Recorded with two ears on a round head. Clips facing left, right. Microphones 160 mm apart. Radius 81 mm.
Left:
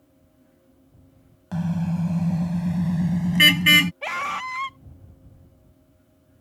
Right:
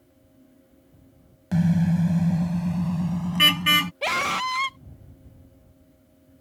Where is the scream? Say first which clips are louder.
Right 4 dB; 45° right (ahead or behind).